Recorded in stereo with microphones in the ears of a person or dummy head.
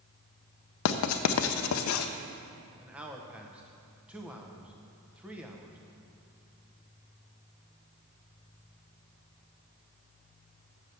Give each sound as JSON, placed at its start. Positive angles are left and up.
{"t": 0.8, "sound": "writing", "side_deg": 70, "distance_m": 0.5}
{"t": 2.8, "sound": "a man speaking", "side_deg": -10, "distance_m": 0.8}